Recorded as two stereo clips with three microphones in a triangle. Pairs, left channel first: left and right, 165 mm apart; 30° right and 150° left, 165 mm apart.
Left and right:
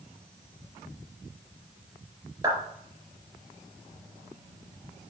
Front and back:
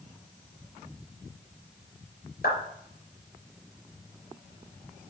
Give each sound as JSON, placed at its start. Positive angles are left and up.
{"t": 2.4, "sound": "a clap", "azimuth_deg": -25, "distance_m": 3.0}